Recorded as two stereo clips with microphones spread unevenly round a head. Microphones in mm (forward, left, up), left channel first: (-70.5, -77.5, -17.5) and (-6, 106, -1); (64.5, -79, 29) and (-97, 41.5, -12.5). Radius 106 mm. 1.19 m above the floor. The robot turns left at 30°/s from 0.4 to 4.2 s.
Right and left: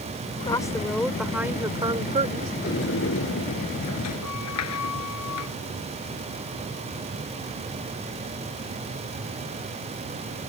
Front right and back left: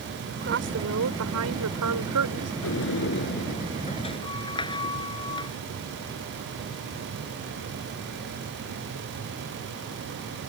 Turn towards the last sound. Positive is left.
turn(degrees=-105)